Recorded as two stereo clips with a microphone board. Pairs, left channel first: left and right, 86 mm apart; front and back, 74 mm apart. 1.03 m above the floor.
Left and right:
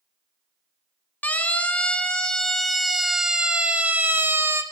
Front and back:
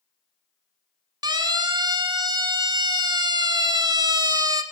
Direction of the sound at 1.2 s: 160° left.